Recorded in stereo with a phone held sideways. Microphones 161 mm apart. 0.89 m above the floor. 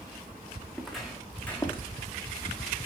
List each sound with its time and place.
0.7 s footsteps: 5° right (ahead or behind), 3.5 m; by 1.9 s 15° left (ahead or behind), 2 m